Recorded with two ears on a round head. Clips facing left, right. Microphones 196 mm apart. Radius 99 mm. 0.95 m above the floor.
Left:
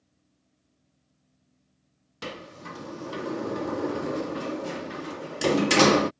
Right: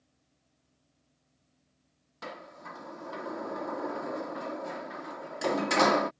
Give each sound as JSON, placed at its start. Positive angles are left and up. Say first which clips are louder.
{"t": 2.2, "sound": "a sliding door", "louder": "left 5 dB", "side_deg": 35}